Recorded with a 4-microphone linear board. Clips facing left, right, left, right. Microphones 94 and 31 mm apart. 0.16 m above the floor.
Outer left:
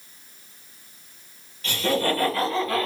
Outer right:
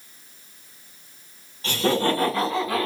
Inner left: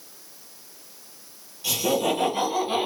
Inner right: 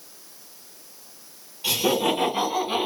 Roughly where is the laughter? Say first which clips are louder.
Outer right 2 dB, inner right 1 dB; right.